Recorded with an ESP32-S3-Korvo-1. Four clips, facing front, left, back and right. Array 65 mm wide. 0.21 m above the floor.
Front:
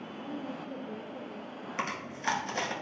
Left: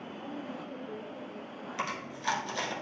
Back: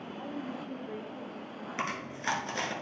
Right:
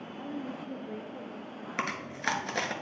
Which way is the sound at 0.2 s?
115° right.